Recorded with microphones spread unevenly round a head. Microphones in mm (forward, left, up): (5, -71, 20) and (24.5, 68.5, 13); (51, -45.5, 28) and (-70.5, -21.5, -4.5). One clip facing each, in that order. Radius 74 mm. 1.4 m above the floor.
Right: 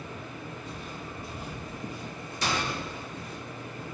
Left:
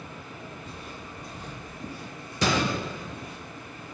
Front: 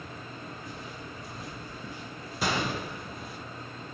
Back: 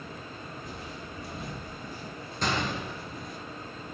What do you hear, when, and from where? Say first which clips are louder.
0.6 s footsteps: right 2 dB, back 1 dB; 170° left, 2 m; by 3.4 s 70° right, 1.8 m
2.4 s a gunshot: left 6 dB, even; 75° left, 0.9 m